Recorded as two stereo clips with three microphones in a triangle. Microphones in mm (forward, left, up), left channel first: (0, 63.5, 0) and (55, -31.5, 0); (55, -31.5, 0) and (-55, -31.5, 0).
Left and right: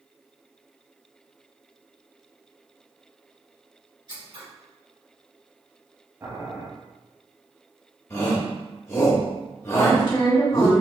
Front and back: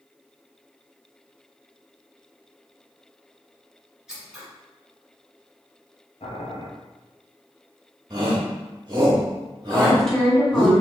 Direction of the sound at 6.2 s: 5° left.